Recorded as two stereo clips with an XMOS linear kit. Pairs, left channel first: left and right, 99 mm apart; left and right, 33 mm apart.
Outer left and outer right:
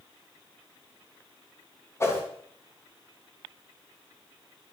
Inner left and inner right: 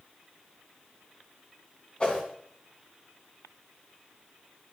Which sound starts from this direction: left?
A whoosh, at 2.0 s.